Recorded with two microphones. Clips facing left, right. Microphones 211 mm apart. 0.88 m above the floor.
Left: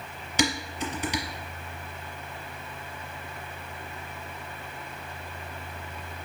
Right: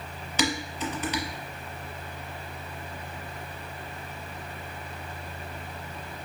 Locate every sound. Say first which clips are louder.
0.4 s dishes clattering: even; 15° left (ahead or behind), 0.9 m